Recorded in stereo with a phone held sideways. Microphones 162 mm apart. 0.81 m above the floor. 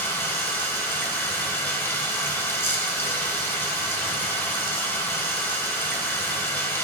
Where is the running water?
15° left (ahead or behind), 0.9 m.